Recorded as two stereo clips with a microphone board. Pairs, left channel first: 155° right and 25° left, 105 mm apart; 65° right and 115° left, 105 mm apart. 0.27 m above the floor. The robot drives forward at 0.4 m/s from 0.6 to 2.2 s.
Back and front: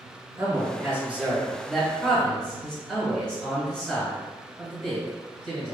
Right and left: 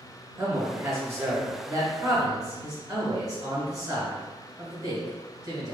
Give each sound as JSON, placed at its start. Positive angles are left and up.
{"t": 0.4, "sound": "a man speaking", "azimuth_deg": 70, "distance_m": 1.1}